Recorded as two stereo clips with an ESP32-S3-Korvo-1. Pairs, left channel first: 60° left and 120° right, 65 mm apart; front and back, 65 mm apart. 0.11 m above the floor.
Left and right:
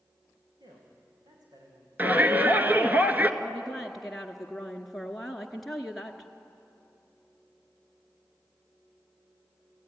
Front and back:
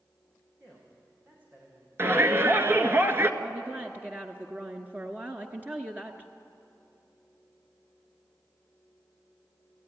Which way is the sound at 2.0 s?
165° right.